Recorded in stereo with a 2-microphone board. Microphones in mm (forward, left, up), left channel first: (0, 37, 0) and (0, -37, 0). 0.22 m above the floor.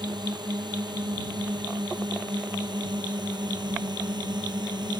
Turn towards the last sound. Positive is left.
turn(degrees=-75)  # may be behind; listen again after turning